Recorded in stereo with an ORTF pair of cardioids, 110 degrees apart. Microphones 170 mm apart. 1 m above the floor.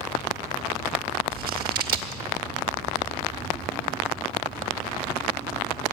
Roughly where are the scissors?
Ahead right.